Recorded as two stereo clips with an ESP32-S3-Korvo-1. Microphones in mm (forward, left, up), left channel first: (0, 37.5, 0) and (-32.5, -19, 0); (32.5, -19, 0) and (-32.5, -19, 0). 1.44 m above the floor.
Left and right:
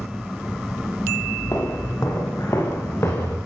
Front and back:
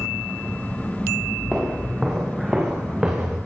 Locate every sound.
1.5 s footsteps: 95° left, 9.5 m; by 3.4 s 105° left, 8.5 m